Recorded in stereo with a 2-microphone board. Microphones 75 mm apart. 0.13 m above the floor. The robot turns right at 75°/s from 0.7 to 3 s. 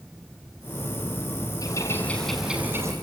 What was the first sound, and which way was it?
A bird, 125° left.